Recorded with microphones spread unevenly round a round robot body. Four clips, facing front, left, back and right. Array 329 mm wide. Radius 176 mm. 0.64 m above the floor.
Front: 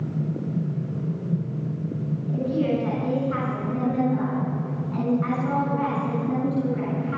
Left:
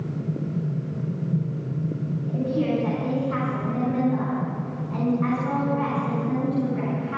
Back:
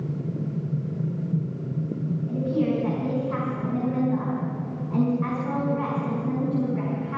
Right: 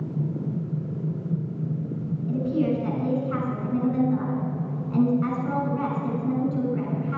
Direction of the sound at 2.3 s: 120° right.